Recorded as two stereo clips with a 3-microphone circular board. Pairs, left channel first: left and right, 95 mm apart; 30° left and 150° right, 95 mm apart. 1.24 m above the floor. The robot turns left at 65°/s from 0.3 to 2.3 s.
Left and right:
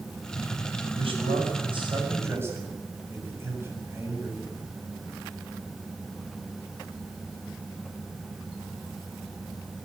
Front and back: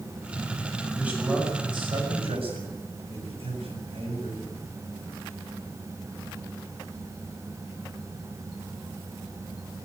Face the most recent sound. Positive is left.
turn(degrees=-155)